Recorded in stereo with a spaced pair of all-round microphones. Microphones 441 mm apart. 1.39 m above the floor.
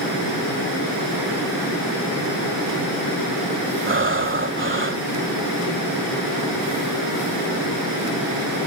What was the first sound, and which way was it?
Breathing, 25° right (ahead or behind).